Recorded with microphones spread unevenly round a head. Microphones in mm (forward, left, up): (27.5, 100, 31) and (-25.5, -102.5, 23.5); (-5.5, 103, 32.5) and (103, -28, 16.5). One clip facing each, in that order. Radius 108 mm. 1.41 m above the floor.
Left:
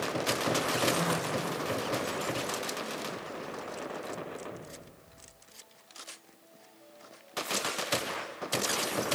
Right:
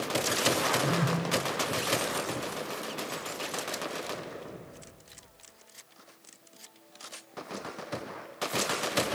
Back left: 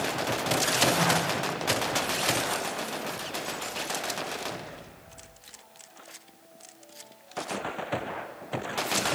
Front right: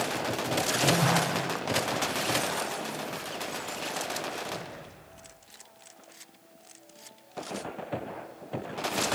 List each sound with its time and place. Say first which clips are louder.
0.8 s a phone buzzing: even, front right 1 dB; 95° right, 10 m